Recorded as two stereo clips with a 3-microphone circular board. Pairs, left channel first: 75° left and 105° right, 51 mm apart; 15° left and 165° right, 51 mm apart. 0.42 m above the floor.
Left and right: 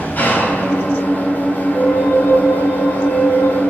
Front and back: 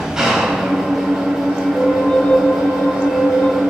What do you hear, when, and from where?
0.0 s an engine running: 115° left, 2.5 m
1.7 s a flute: 80° left, 4.5 m